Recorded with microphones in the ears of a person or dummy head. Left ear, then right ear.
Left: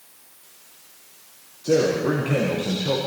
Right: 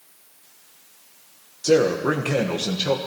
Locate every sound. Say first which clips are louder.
1.6 s a man speaking: right 2 dB; 75° right (ahead or behind), 1.3 m